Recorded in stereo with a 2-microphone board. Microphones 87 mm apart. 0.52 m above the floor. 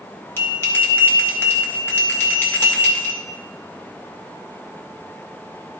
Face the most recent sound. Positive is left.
turn(degrees=25)  # may be behind; listen again after turning